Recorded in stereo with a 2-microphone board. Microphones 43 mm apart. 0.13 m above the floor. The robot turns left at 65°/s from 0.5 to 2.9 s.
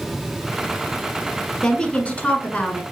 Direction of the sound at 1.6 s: 145° left.